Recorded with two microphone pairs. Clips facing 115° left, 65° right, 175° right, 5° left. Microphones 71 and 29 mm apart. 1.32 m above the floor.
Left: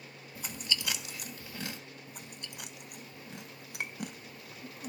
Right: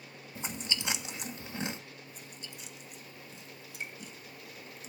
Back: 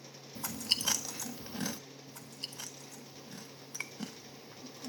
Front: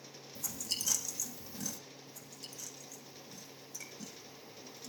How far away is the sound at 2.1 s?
About 1.2 m.